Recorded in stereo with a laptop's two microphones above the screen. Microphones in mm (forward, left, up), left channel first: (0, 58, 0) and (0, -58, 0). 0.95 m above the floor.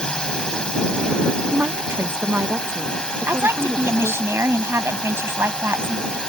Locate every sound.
0.0 s a drone: 5° left (ahead or behind)
1.5 s a woman speaking: 20° right (ahead or behind)
3.3 s a woman speaking: 20° right (ahead or behind)